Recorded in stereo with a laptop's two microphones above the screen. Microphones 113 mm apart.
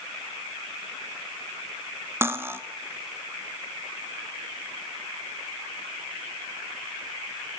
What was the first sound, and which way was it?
Cutlery clinking, 20° right (ahead or behind).